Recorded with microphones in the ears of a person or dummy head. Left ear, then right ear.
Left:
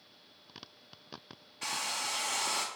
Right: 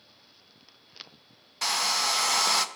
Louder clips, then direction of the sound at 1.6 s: Right 9 dB; 55° right (ahead or behind).